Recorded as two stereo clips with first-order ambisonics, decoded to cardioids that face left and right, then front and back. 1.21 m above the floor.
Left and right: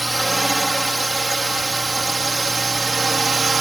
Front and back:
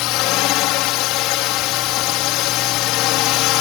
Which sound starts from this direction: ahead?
A drone, at 0.0 s.